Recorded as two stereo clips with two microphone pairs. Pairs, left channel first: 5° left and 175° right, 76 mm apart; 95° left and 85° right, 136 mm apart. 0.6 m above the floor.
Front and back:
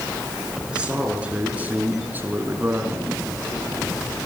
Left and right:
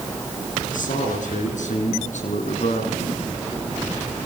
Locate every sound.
0.7 s a man speaking: 110° left, 7 m; by 3.2 s 130° left, 5.5 m